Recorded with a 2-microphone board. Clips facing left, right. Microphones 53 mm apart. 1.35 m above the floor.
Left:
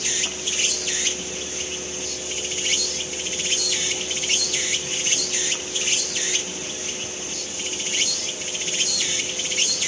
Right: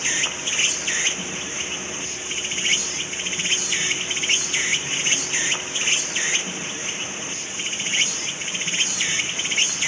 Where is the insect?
35° right (ahead or behind).